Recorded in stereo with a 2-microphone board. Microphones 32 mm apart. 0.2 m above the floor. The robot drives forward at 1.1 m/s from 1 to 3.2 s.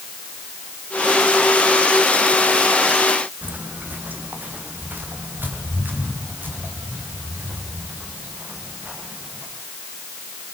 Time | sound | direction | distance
3.4 | footsteps | 55° right (ahead or behind) | 3 m